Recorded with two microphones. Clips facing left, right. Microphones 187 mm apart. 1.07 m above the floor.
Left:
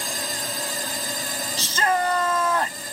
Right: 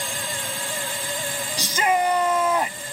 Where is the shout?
15° right (ahead or behind).